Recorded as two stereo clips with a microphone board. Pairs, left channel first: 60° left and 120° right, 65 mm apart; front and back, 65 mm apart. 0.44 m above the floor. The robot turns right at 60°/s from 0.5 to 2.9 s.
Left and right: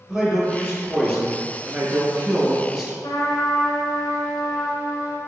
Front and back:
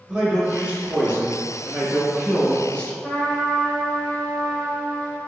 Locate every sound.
0.1 s a man speaking: 170° left, 0.7 m; by 2.9 s 50° right, 0.7 m
3.0 s a trumpet: 70° left, 0.6 m